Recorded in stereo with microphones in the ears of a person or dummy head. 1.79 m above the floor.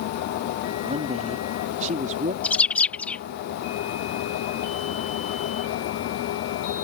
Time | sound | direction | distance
0.8 | a woman speaking | 45° right (ahead or behind) | ?
2.4 | a bird | 10° left (ahead or behind) | ?